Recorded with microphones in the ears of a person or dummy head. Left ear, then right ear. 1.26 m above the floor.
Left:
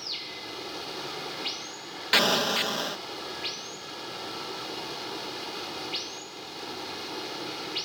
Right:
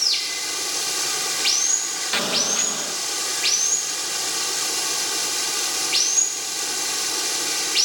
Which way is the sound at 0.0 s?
70° right (ahead or behind).